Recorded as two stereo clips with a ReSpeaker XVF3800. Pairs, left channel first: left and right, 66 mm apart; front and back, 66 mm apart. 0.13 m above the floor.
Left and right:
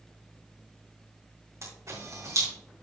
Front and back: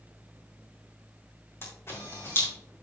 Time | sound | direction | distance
1.6 | a camera shutter | 50° right | 3.5 m